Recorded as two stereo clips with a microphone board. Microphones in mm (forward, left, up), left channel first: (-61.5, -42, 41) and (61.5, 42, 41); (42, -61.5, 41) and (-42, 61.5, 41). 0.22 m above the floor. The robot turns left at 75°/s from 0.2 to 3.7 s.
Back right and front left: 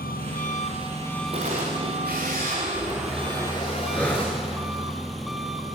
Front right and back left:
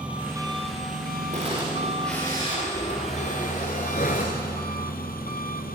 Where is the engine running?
155° right, 1.8 m; by 5.8 s 55° right, 1.8 m.